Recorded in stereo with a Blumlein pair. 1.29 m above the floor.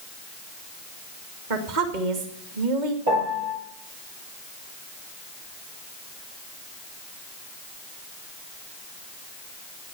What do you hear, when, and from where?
1.5 s a woman speaking: 50° right, 2.5 m
3.1 s a piano: 55° right, 4.5 m